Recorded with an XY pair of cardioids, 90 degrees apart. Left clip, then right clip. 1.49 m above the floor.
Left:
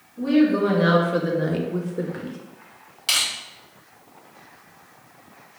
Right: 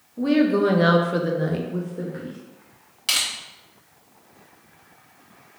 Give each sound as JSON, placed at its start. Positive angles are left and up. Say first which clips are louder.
{"t": 0.2, "sound": "a woman speaking", "louder": "even", "azimuth_deg": -55, "distance_m": 0.9}
{"t": 3.1, "sound": "crushing", "louder": "left 1 dB", "azimuth_deg": -20, "distance_m": 1.6}